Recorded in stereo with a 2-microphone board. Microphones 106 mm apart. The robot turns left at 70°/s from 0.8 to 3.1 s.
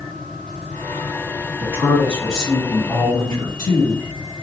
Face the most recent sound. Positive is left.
turn(degrees=125)